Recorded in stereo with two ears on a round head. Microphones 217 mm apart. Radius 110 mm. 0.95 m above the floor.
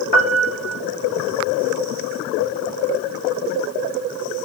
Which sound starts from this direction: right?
A piano, at 0.1 s.